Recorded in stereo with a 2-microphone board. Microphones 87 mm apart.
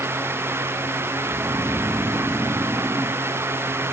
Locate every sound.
1.2 s snoring: 5° right (ahead or behind)